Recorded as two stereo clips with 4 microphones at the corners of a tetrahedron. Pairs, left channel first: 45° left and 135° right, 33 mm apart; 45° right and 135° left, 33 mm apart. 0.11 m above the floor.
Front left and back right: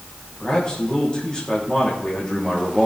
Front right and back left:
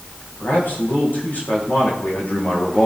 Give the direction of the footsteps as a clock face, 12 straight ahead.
I don't hear footsteps.